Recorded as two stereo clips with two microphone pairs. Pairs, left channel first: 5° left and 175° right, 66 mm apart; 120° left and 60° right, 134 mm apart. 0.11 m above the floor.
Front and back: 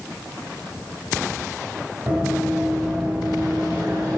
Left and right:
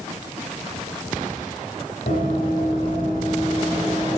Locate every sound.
2.1 s running footsteps: 120° left, 5 m; by 4.2 s 130° left, 8 m